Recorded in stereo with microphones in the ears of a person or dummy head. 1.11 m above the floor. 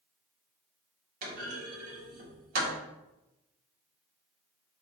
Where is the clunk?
45° right (ahead or behind), 2.5 m.